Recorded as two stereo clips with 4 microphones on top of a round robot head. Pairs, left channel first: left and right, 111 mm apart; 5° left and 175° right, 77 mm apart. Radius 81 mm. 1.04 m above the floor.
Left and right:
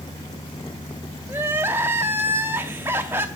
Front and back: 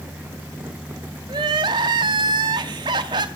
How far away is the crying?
About 0.6 m.